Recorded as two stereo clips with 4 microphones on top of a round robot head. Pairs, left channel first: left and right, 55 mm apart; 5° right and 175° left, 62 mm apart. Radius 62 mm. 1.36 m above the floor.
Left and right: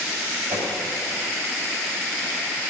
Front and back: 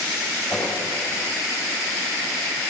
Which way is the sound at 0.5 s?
85° right.